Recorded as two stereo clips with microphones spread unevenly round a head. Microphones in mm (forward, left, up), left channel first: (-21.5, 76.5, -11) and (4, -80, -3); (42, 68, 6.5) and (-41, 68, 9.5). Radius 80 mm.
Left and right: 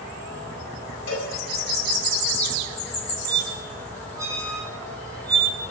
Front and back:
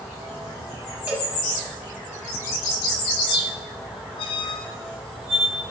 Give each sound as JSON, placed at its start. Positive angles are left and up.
{"t": 1.1, "sound": "a cowbell", "azimuth_deg": 110, "distance_m": 7.5}
{"t": 3.3, "sound": "a squeak", "azimuth_deg": -10, "distance_m": 3.5}